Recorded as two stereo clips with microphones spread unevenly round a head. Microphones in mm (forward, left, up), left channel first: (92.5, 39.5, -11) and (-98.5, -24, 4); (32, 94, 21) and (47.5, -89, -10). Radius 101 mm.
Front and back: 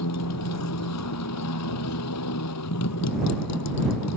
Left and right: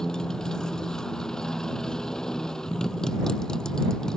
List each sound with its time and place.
0.0 s a motorcycle: 10° left